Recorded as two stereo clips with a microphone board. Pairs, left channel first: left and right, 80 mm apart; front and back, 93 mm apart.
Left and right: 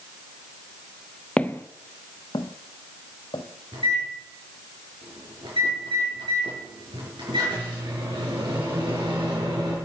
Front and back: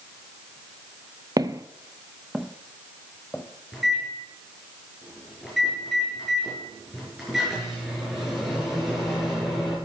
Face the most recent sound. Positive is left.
turn(degrees=-90)